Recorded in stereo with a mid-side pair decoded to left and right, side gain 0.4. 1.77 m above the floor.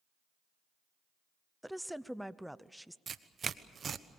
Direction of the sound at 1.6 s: Straight ahead.